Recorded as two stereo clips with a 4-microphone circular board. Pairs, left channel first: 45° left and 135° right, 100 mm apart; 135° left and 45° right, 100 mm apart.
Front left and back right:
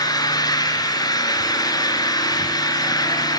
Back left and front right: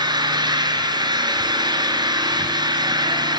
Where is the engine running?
5° right, 3.5 m.